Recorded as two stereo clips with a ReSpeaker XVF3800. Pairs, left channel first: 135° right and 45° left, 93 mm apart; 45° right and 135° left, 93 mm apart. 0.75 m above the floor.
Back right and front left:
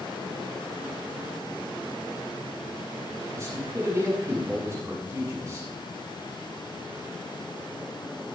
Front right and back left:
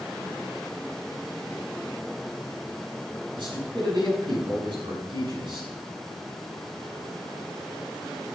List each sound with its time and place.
3.4 s a man speaking: 105° left, 7.5 m